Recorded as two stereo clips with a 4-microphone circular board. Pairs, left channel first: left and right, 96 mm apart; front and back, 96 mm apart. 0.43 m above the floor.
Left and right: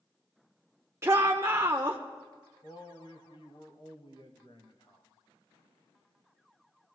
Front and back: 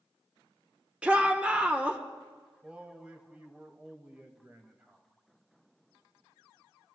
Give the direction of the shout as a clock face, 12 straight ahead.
4 o'clock.